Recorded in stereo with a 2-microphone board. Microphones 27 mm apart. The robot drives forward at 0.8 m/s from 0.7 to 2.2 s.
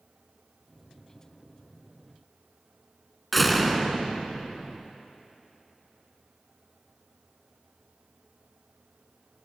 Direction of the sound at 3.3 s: Centre (ahead or behind).